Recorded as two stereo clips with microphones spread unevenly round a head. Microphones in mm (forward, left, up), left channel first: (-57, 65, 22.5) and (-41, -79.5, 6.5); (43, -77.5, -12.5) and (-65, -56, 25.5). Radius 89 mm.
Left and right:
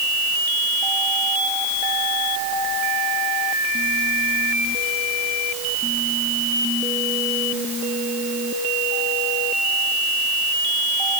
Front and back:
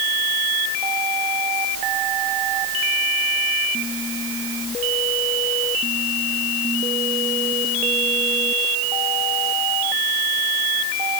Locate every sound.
Only background noise.